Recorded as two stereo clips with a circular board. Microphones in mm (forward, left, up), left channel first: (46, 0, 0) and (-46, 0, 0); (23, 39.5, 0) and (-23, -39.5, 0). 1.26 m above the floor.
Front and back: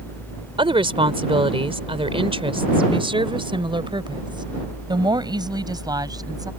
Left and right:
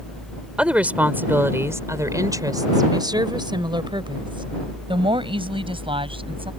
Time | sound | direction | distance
0.6 | a woman speaking | 160° left | ?